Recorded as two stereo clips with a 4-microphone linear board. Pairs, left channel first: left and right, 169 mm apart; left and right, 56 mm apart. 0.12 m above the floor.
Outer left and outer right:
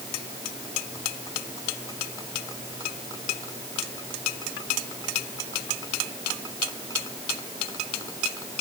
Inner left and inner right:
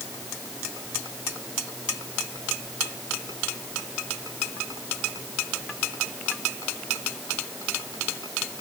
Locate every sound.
Only background noise.